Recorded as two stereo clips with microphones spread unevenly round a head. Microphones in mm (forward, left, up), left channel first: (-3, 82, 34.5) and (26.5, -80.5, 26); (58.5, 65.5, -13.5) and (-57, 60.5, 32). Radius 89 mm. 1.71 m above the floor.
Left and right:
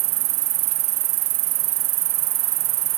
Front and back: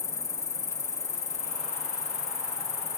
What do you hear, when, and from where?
0.0 s an insect: 80° right